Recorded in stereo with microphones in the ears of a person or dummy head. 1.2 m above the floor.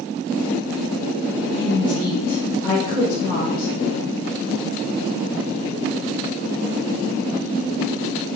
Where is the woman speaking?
55° left (ahead or behind), 1.5 m.